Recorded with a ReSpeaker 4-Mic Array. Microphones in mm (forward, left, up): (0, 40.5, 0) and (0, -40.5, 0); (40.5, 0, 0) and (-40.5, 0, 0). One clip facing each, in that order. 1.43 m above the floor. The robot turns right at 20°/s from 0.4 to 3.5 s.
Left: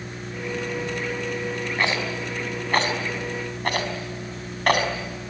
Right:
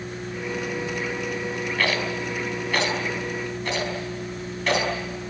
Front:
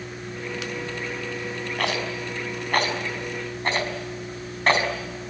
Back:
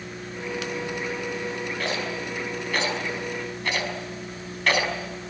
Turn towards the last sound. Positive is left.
turn(degrees=55)